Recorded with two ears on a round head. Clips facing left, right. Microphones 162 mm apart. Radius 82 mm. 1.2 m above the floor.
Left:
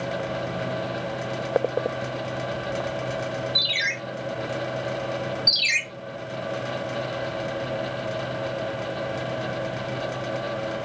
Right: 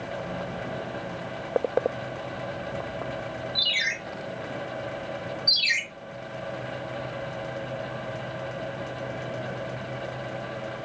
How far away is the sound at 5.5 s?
About 1.0 m.